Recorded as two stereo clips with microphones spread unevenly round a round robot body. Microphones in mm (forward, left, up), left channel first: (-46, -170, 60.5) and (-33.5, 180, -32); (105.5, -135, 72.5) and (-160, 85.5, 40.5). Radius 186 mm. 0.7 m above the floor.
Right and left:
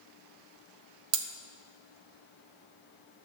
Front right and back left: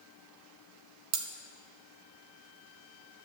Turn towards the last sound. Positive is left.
turn(degrees=95)